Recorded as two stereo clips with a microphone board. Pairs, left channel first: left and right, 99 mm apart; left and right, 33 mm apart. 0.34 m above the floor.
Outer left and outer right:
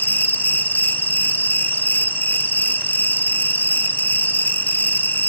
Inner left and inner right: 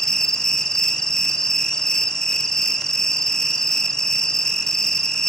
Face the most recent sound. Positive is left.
turn(degrees=20)  # may be behind; listen again after turning